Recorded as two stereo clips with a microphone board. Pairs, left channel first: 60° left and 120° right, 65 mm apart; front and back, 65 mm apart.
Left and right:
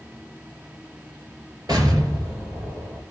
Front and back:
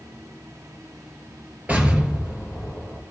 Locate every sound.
1.7 s an explosion: 110° right, 2 m